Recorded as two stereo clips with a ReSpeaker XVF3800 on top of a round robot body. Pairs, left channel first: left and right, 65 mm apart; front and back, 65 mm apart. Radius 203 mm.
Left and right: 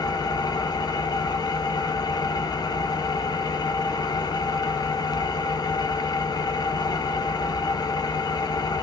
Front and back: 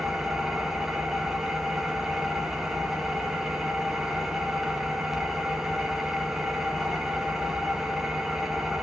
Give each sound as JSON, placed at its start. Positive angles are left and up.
{"t": 0.0, "sound": "an engine running", "azimuth_deg": 95, "distance_m": 1.1}